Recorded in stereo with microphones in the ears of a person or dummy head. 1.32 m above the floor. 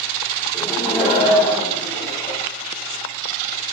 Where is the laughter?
10° left (ahead or behind), 0.8 m; by 2.4 s 20° right (ahead or behind), 1.8 m.